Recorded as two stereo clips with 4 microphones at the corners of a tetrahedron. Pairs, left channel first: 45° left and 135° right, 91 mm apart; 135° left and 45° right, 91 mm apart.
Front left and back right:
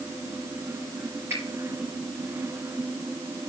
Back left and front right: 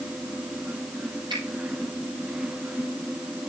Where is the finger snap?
75° right, 5 m.